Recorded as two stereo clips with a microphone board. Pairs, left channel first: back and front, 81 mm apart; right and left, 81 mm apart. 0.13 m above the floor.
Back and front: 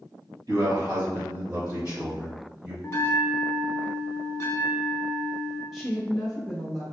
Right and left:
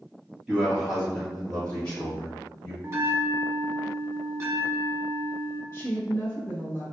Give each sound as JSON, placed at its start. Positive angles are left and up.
{"t": 0.5, "sound": "a man speaking", "azimuth_deg": 15, "distance_m": 1.9}
{"t": 2.8, "sound": "a bell", "azimuth_deg": 135, "distance_m": 0.6}
{"t": 5.7, "sound": "a woman speaking", "azimuth_deg": -85, "distance_m": 1.9}